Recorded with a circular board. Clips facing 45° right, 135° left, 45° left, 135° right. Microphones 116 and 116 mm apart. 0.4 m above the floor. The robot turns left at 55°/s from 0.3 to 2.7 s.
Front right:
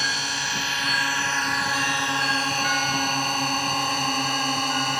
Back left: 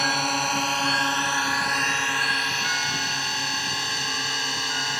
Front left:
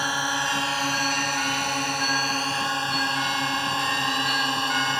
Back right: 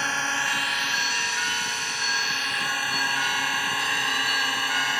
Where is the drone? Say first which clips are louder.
Back left 6 dB, front left 2 dB; 120° left; by 5.0 s 15° right.